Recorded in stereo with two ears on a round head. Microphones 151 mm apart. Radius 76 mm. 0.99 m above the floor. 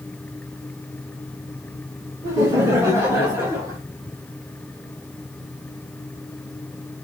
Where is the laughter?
20° right (ahead or behind), 1.2 m; by 3.8 s 15° right (ahead or behind), 2.5 m.